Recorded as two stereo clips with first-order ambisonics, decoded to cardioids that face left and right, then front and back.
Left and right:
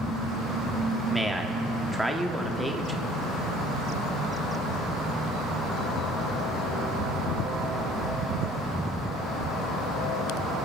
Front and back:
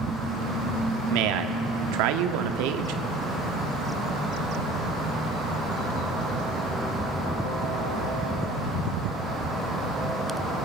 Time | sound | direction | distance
1.1 | a man speaking | straight behind | 0.8 m